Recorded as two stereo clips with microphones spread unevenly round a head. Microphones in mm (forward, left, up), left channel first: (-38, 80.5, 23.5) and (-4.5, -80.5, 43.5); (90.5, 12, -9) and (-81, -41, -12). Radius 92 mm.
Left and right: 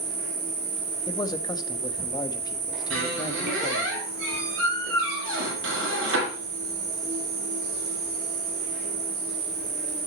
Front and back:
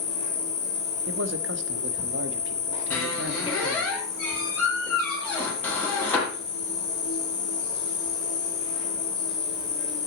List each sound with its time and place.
0.0 s an insect: 45° right, 5.5 m
1.1 s a man speaking: 170° left, 1.3 m
2.9 s a squeak: 60° right, 8 m